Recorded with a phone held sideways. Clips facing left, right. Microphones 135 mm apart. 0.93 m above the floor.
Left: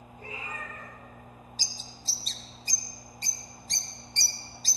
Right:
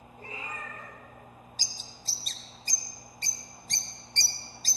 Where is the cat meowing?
35° right (ahead or behind), 5 m.